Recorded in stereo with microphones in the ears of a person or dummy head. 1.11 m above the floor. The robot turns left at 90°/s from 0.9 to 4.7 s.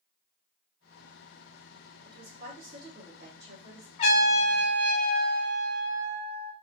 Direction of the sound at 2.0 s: 10° left.